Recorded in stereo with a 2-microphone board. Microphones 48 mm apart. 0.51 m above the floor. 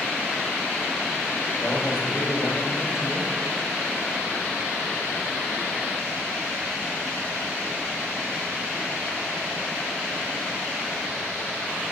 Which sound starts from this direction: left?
A man speaking, at 1.6 s.